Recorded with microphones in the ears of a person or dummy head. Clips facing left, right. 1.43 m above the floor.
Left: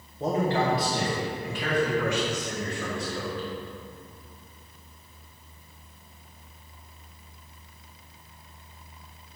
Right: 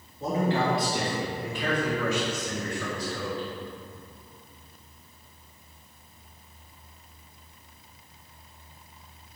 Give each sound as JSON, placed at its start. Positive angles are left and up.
{"t": 0.2, "sound": "a man speaking", "side_deg": 25, "distance_m": 1.4}